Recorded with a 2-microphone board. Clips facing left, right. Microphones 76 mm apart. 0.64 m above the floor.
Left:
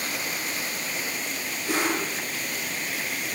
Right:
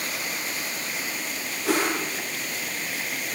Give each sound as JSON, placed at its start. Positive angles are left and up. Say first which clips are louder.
{"t": 1.6, "sound": "a whoosh", "louder": "right 2 dB", "side_deg": -80, "distance_m": 8.5}